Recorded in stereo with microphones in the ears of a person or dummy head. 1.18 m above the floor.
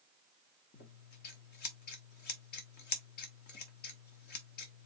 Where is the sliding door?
No sliding door in this recording.